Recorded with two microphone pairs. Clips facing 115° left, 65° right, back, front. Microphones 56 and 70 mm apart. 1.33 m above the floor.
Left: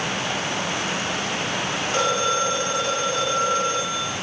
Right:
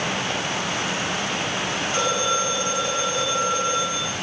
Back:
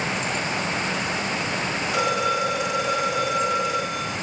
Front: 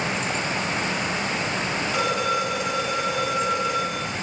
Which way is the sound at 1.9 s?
95° left.